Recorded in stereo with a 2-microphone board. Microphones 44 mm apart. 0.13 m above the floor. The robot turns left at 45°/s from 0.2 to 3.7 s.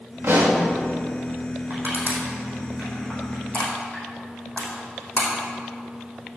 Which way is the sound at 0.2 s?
70° right (ahead or behind).